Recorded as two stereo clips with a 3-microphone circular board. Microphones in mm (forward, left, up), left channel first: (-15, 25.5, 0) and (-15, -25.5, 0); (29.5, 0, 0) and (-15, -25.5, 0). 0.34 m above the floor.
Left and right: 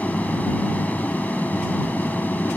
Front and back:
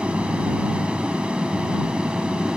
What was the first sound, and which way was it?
An aircraft, 145° left.